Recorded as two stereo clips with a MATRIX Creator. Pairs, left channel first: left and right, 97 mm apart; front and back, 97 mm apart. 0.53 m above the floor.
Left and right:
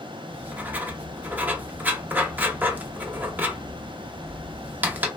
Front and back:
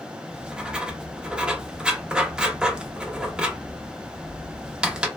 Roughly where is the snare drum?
I don't hear a snare drum.